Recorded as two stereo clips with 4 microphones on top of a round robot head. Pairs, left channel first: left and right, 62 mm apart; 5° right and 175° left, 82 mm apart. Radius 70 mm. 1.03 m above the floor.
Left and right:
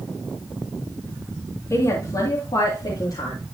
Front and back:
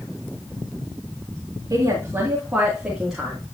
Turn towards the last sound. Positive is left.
turn(degrees=85)